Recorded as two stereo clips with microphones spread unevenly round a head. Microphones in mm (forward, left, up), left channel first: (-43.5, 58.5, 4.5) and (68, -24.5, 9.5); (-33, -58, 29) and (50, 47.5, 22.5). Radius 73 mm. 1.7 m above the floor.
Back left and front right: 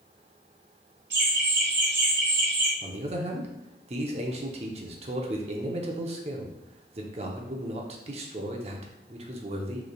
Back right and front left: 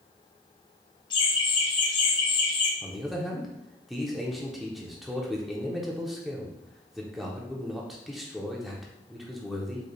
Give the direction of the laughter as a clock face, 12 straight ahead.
2 o'clock.